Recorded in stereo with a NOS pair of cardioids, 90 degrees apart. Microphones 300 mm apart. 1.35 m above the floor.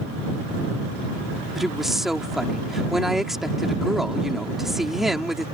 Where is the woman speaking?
Straight ahead.